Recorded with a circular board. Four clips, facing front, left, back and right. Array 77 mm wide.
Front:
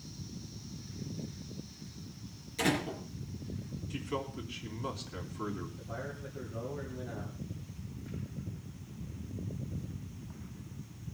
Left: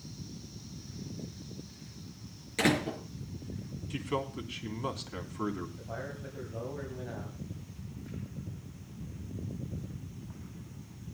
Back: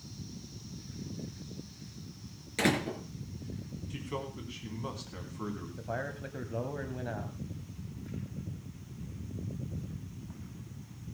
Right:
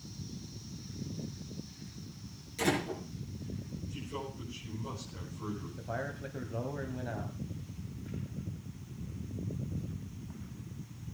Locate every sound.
2.6 s a door slam: 135° left, 4.5 m
3.9 s a man speaking: 90° left, 3.5 m
5.8 s a man speaking: 155° right, 2 m